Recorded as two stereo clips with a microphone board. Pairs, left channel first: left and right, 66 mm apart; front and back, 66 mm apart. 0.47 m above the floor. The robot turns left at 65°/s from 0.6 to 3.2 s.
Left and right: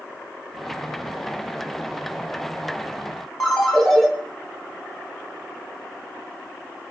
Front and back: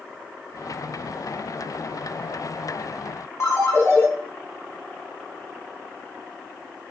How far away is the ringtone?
About 0.6 m.